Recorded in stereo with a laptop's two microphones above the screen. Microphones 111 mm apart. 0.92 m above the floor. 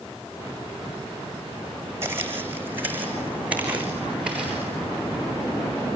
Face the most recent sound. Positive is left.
turn(degrees=-10)  # may be behind; listen again after turning